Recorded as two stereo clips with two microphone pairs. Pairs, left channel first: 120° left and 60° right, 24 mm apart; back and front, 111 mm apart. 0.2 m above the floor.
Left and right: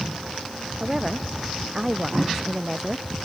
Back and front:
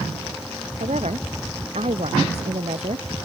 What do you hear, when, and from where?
0.8 s a woman speaking: 15° left; by 3.1 s 10° left